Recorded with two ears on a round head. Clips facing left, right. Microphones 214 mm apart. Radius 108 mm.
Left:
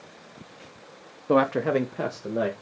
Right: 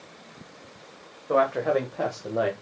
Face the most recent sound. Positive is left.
turn(degrees=15)  # may be behind; listen again after turning